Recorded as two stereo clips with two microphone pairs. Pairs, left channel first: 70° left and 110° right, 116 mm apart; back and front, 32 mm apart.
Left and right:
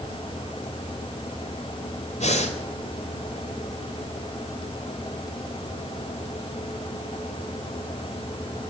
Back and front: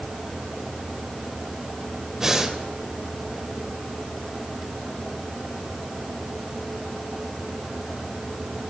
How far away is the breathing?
About 2 m.